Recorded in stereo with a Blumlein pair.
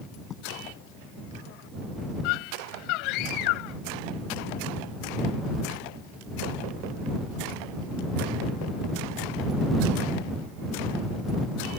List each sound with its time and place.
0.3 s writing: 25° left
2.2 s a scream: 40° left